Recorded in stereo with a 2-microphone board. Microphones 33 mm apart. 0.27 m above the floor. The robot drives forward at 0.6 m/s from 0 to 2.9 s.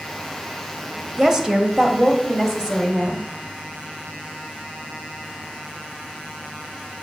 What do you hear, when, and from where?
1.2 s a woman speaking: 15° right (ahead or behind), 1.2 m